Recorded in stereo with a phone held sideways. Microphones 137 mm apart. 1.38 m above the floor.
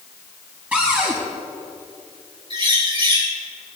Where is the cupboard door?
10° right (ahead or behind), 5.5 m.